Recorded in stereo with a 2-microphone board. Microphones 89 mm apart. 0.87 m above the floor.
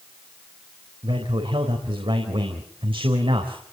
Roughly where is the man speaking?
Right.